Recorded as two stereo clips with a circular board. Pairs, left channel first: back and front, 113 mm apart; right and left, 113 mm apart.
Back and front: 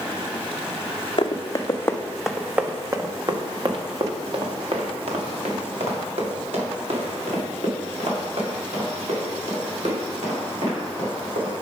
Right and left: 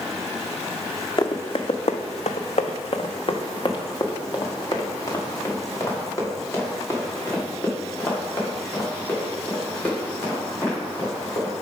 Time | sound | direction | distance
1.2 | running footsteps | 135° right | 0.8 m